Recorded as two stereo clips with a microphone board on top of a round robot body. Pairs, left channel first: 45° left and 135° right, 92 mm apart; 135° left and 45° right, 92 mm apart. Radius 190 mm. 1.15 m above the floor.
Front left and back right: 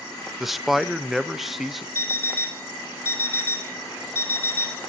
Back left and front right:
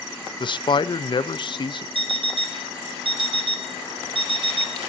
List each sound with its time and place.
0.4 s a man speaking: 135° left, 1.0 m
1.9 s an alarm clock: 20° right, 0.6 m